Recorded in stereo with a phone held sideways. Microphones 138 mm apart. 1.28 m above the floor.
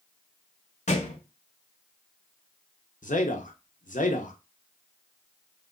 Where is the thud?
55° left (ahead or behind), 1.7 m.